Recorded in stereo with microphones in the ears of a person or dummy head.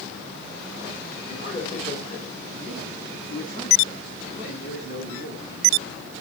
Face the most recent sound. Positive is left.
turn(degrees=45)  # may be behind; listen again after turning